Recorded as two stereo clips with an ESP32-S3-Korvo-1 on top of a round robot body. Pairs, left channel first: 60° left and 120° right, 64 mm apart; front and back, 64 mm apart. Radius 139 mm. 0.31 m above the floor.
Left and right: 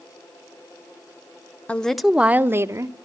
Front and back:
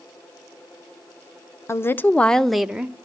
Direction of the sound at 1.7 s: Straight ahead.